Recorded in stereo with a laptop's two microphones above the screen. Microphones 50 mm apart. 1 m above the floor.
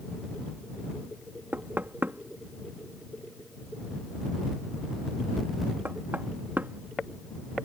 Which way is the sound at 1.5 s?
45° right (ahead or behind).